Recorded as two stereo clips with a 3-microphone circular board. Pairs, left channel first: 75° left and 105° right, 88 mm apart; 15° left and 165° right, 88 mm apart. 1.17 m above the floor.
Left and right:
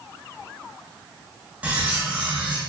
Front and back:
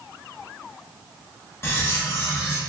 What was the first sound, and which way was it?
Cutlery clinking, 35° right.